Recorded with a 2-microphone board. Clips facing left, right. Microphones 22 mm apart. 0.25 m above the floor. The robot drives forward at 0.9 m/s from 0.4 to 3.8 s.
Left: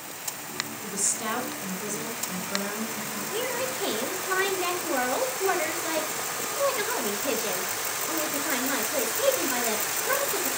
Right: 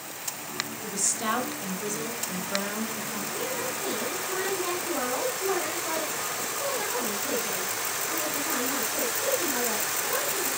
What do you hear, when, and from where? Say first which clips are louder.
0.8 s a woman speaking: right 2 dB; 5° right (ahead or behind), 3 m; by 3.2 s centre (ahead or behind), 5 m
3.3 s a woman speaking: left 4 dB; 75° left (ahead or behind), 5.5 m